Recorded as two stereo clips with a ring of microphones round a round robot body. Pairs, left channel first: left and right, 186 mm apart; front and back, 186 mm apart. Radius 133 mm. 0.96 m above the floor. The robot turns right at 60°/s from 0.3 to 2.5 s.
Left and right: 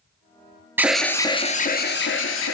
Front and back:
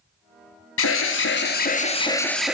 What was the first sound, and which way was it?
An alarm, 10° right.